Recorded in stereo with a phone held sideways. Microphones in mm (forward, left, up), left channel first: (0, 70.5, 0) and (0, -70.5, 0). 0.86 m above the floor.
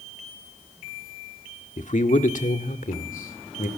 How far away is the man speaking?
About 1.7 m.